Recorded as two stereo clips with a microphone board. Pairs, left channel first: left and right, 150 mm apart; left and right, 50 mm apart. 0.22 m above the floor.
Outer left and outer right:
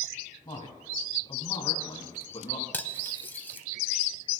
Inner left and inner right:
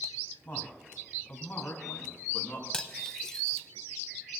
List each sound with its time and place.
0.5 s a man speaking: 30° left (ahead or behind), 1.8 m
2.7 s cutlery clinking: 15° left (ahead or behind), 0.5 m